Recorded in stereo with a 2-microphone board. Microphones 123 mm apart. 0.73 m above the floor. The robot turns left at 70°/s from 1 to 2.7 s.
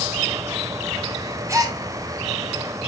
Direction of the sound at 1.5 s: 25° right (ahead or behind).